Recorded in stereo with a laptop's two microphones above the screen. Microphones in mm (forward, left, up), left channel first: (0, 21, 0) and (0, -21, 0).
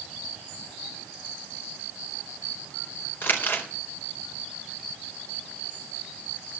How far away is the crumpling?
About 4 m.